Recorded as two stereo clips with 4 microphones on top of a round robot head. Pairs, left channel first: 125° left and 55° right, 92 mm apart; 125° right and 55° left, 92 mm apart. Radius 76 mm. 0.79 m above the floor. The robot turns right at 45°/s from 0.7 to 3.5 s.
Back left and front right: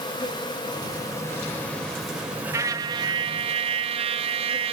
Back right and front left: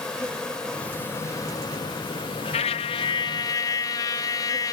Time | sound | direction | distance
0.0 | an insect | 155° left | 2.5 m
2.5 | a trumpet | 115° right | 0.7 m